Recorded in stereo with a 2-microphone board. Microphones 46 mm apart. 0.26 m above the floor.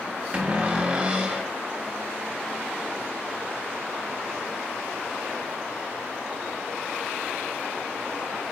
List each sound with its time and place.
0.3 s a cupboard door: 25° right (ahead or behind), 0.5 m